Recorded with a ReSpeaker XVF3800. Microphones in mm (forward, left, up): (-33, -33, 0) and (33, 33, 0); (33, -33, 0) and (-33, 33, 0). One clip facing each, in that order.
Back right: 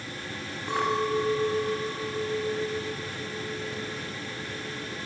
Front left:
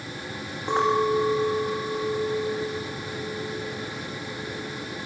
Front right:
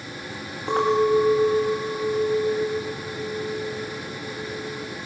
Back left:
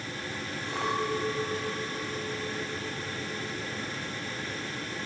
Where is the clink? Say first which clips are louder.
Front left 5 dB, front right 12 dB; 20° right, 8.5 m.